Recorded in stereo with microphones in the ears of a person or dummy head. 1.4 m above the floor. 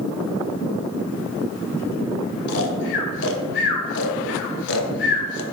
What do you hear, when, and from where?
2.5 s snoring: 65° left (ahead or behind), 0.8 m